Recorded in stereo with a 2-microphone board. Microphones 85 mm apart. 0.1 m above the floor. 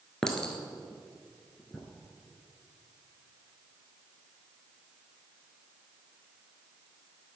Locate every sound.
0.2 s a clink: 10° left (ahead or behind), 1.1 m